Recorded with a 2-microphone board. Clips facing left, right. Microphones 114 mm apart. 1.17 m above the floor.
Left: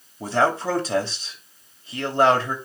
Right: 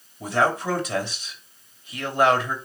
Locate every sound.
0.2 s a man speaking: 30° left (ahead or behind), 3 m